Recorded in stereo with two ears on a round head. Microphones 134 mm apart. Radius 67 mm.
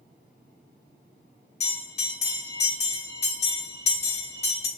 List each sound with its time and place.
1.6 s a bell: 45° left (ahead or behind), 1.2 m